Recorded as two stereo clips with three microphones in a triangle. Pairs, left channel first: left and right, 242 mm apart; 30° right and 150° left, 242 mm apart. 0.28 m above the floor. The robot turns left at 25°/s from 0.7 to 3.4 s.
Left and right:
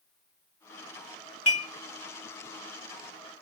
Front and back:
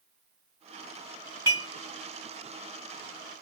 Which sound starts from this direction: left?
Dishes clattering, at 1.5 s.